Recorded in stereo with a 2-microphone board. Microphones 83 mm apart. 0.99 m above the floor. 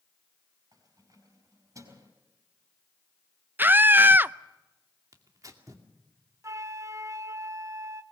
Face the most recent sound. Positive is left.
turn(degrees=-40)  # may be behind; listen again after turning